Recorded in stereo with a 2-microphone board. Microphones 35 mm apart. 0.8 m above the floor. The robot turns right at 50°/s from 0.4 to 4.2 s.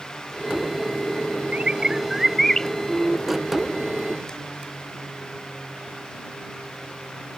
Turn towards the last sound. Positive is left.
turn(degrees=95)